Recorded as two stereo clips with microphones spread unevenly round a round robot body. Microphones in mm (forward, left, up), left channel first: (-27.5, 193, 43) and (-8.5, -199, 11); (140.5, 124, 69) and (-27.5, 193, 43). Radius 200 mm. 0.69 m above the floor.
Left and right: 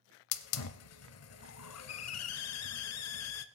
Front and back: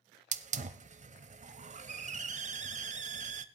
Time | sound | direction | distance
0.3 | a hiss | 115° left | 0.6 m